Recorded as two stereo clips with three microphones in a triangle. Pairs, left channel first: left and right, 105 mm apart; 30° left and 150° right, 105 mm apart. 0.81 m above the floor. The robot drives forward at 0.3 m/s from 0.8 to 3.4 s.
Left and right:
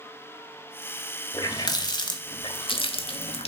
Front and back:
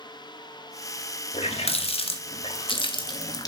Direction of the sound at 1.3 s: 40° left.